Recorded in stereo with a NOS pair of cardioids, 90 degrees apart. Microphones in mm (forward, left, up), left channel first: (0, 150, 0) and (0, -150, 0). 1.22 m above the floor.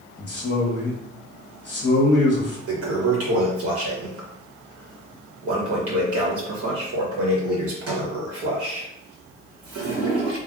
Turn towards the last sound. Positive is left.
turn(degrees=-50)